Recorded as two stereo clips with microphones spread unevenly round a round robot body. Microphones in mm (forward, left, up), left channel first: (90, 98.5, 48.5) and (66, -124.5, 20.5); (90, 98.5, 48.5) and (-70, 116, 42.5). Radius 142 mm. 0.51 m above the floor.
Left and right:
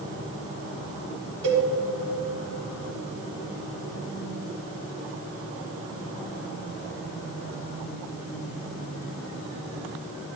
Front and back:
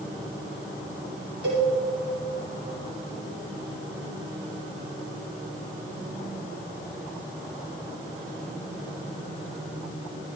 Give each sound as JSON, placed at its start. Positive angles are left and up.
{"t": 1.4, "sound": "a cowbell", "azimuth_deg": -145, "distance_m": 2.5}